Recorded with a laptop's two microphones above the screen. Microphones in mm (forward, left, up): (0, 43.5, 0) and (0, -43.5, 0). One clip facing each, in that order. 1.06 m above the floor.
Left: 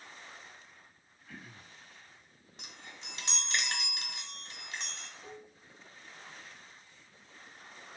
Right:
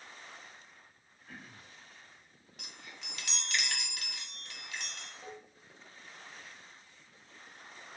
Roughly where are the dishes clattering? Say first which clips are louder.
Right 1 dB; right.